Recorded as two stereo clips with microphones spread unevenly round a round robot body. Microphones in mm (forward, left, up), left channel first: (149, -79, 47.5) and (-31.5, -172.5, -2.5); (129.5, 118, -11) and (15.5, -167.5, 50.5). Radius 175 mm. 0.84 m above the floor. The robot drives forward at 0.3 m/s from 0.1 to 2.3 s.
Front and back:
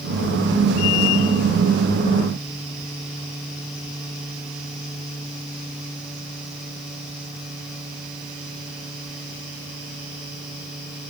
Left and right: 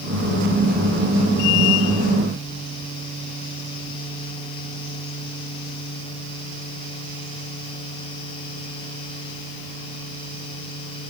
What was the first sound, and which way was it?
Only background noise.